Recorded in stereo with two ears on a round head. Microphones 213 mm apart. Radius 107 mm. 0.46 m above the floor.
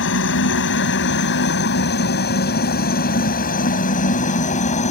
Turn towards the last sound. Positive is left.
turn(degrees=30)  # may be behind; listen again after turning